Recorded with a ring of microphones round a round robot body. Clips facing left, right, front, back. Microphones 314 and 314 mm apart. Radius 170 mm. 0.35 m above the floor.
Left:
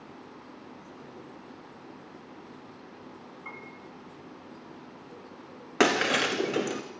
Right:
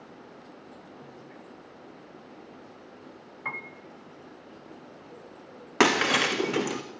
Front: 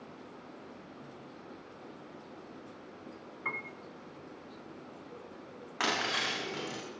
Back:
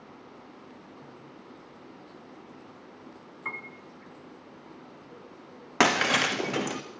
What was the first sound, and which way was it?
A piano, 90° right.